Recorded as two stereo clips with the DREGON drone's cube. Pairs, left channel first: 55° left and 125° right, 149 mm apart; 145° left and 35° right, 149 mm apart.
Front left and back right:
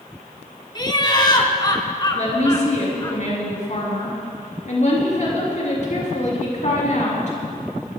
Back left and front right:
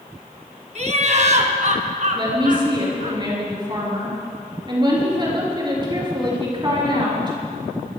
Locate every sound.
0.8 s laughter: straight ahead, 1.8 m; by 3.1 s 5° right, 3.5 m
2.1 s a woman speaking: 25° left, 6 m